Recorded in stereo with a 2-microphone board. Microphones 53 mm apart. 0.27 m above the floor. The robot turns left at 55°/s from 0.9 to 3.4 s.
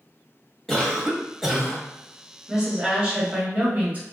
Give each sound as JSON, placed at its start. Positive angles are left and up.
{"t": 0.7, "sound": "a cough", "azimuth_deg": 15, "distance_m": 1.0}
{"t": 2.5, "sound": "a woman speaking", "azimuth_deg": -20, "distance_m": 1.1}